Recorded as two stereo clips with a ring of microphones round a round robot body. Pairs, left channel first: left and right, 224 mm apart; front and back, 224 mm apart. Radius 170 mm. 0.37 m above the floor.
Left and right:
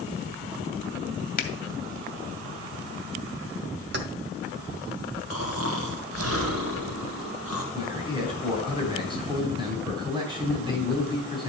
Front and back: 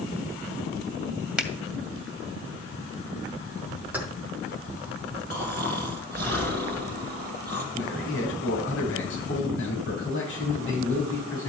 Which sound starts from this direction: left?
A finger snap, at 1.4 s.